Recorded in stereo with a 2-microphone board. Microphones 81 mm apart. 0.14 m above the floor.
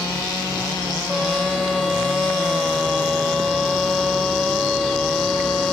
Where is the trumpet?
Centre (ahead or behind).